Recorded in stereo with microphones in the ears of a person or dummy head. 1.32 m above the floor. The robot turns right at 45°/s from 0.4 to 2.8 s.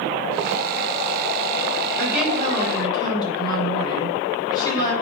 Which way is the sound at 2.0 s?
15° right.